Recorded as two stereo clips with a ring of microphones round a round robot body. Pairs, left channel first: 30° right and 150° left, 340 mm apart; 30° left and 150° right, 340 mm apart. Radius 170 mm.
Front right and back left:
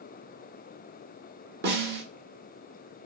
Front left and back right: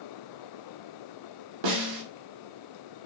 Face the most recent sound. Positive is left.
turn(degrees=-150)